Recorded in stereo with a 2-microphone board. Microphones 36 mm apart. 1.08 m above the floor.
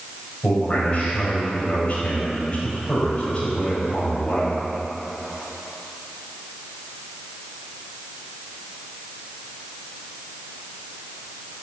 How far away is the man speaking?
About 5.5 m.